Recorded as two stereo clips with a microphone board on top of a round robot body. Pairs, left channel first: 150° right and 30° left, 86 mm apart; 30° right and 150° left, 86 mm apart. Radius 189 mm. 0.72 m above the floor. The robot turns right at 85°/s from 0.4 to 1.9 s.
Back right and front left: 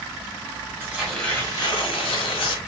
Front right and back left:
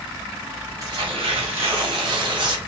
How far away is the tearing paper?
About 1.4 m.